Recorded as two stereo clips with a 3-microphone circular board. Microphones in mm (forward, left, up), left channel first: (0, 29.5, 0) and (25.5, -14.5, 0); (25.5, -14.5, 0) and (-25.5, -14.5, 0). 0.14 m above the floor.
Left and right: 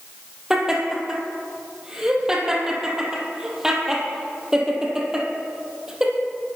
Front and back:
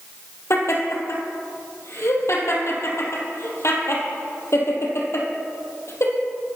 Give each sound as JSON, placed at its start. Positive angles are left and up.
{"t": 0.5, "sound": "laughter", "azimuth_deg": 15, "distance_m": 4.0}